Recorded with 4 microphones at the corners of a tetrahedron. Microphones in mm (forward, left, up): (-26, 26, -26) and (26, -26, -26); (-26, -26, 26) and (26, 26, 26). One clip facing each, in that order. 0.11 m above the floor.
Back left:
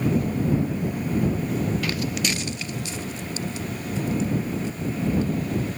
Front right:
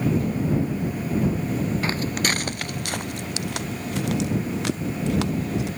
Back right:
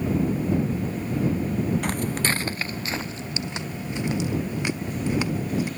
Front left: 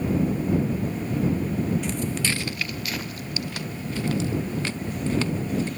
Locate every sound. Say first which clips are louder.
1.8 s footsteps: front right 2 dB, back right 1 dB; 105° right; by 5.7 s 55° right